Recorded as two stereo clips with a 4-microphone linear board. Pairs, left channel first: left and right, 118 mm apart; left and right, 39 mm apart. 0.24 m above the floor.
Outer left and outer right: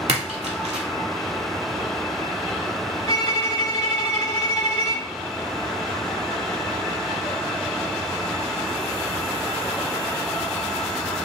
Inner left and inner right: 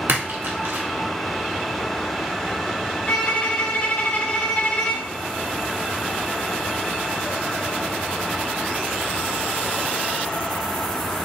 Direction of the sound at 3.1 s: 35° left (ahead or behind).